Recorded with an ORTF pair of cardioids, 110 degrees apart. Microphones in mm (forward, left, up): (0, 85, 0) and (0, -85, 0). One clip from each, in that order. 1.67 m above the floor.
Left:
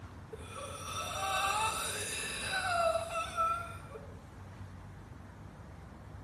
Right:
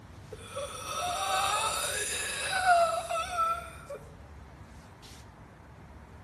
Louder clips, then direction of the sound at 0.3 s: Right 6 dB; 55° right.